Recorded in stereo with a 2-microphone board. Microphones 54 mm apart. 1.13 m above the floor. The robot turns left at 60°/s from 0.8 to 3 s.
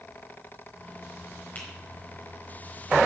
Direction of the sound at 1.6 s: 35° left (ahead or behind).